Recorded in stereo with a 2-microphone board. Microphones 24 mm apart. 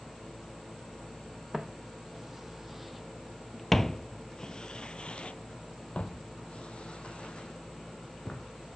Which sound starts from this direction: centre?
Footsteps, at 1.5 s.